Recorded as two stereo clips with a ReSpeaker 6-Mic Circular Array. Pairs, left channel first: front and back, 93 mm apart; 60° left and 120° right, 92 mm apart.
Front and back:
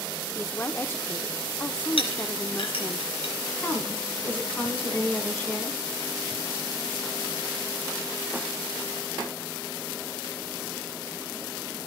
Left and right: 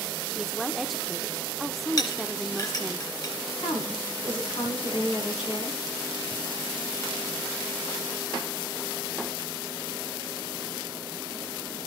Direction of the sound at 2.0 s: 15° left.